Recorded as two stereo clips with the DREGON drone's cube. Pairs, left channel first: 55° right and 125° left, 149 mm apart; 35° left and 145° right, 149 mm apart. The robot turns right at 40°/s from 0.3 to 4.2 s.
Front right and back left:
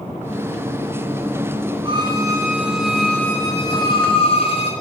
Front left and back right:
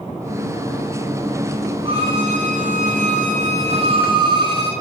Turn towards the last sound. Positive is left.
turn(degrees=-95)